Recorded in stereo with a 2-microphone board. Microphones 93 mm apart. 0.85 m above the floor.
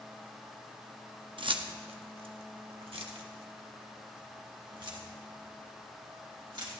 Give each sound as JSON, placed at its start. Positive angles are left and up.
{"t": 1.4, "sound": "keys jangling", "side_deg": -60, "distance_m": 1.0}